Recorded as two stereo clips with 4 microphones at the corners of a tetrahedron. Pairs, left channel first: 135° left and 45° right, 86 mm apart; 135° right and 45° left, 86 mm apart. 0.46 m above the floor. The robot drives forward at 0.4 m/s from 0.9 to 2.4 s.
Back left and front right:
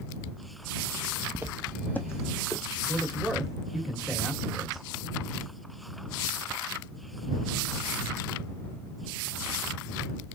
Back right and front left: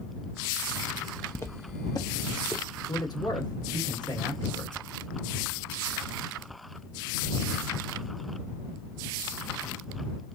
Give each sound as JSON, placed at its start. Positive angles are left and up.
{"t": 1.4, "sound": "footsteps", "azimuth_deg": -85, "distance_m": 0.6}
{"t": 2.9, "sound": "a man speaking", "azimuth_deg": -130, "distance_m": 1.6}